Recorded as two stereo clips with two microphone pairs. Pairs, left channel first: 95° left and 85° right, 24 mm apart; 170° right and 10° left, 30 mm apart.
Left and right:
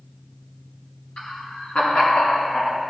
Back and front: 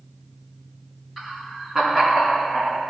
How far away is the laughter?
About 3 m.